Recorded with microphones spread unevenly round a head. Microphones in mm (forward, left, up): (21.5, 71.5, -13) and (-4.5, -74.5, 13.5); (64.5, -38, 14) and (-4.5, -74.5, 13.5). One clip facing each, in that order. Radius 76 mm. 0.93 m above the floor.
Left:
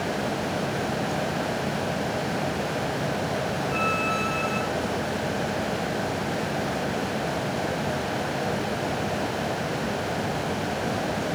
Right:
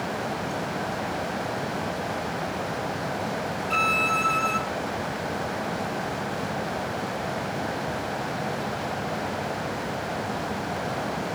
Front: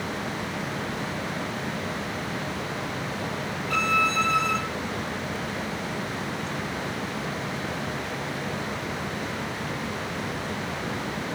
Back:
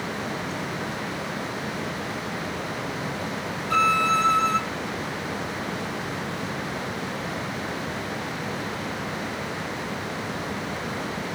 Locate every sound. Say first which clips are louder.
3.7 s a violin: left 1 dB, back 4 dB; 95° right, 1.8 m